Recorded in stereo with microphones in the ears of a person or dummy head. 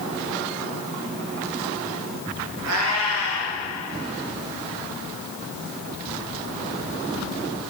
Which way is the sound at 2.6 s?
85° right.